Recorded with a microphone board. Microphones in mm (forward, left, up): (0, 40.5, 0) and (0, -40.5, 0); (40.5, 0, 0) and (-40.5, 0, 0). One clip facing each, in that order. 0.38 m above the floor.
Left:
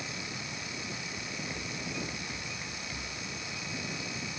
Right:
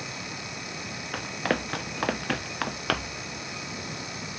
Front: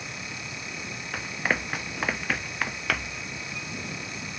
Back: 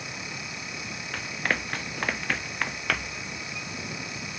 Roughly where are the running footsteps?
Right.